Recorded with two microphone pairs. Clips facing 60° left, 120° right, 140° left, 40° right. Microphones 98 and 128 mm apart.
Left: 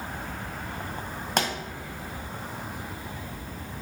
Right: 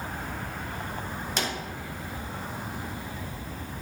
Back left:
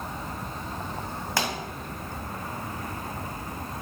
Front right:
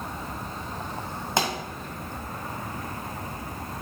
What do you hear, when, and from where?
1.4 s a pop: 25° left, 1.7 m